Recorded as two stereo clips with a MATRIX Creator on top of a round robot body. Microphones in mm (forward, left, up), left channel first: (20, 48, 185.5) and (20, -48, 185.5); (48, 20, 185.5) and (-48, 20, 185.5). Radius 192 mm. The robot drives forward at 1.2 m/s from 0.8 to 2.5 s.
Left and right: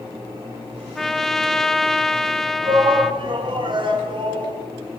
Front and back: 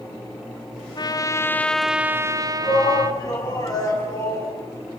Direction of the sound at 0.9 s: 5° left.